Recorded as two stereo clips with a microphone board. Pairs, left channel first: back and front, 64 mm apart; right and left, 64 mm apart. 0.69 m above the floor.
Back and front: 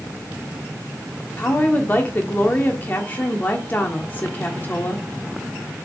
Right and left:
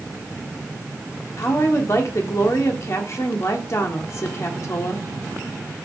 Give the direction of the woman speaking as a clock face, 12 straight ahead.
4 o'clock.